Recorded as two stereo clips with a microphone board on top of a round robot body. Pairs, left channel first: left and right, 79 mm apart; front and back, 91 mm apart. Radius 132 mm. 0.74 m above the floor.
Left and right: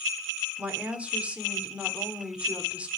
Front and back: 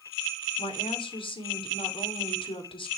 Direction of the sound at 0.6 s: 20° right.